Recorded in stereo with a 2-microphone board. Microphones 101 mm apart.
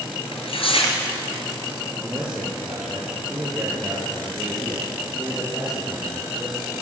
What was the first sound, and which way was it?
Tearing paper, 65° left (ahead or behind).